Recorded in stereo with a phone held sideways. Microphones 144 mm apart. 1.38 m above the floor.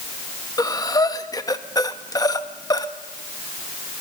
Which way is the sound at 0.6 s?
25° left (ahead or behind).